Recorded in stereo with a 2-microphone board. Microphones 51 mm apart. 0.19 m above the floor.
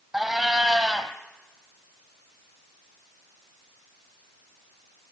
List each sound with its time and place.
0.1 s a cat meowing: 5° right (ahead or behind), 1.7 m